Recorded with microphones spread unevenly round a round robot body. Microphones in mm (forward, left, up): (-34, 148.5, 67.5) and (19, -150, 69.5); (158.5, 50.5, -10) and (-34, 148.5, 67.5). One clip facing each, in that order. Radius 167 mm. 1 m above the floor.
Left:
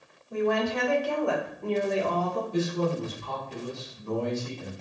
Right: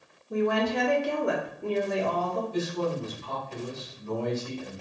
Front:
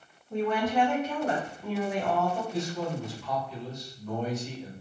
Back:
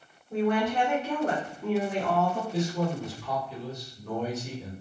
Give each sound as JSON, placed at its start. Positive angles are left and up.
{"t": 0.3, "sound": "a woman speaking", "azimuth_deg": -110, "distance_m": 1.1}
{"t": 2.5, "sound": "a man speaking", "azimuth_deg": 125, "distance_m": 1.6}